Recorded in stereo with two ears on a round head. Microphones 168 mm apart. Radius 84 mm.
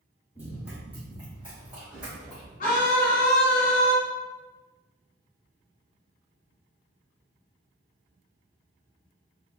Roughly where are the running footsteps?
Centre.